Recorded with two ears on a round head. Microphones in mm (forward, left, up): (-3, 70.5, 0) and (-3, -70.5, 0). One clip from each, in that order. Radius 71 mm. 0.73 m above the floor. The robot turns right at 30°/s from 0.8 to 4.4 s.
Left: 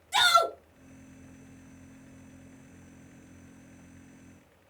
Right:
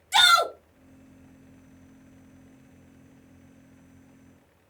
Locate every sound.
0.1 s a shout: 35° right (ahead or behind), 0.8 m